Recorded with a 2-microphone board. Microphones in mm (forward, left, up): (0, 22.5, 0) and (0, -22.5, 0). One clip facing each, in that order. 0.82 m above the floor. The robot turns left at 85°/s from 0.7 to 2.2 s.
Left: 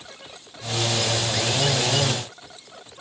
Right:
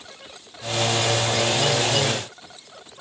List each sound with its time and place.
Only background noise.